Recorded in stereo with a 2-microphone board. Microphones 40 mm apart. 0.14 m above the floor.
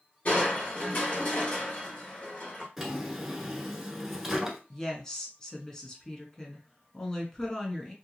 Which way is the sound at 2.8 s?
5° right (ahead or behind).